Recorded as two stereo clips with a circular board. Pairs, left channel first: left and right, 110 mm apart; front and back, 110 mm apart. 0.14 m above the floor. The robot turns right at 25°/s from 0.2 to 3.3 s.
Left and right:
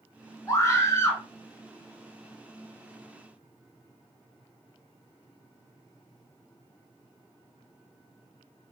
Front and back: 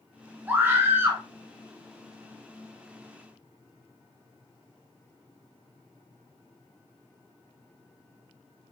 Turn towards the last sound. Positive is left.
turn(degrees=-175)